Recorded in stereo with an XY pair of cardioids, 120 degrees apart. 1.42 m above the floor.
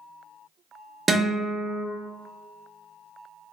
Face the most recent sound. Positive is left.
turn(degrees=-30)